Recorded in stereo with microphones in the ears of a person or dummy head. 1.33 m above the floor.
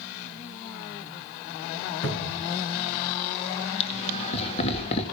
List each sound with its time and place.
2.0 s a cupboard door: 60° left (ahead or behind), 9 m
3.8 s laughter: 35° left (ahead or behind), 2 m